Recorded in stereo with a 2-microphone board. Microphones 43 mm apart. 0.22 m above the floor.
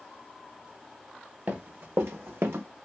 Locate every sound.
1.5 s running footsteps: 45° right (ahead or behind), 1.0 m; by 2.7 s 55° right (ahead or behind), 0.7 m